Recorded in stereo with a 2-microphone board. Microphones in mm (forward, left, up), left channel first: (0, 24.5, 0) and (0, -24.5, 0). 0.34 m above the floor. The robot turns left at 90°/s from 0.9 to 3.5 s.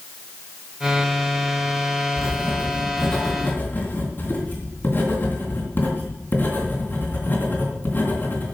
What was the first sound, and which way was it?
Writing, 105° right.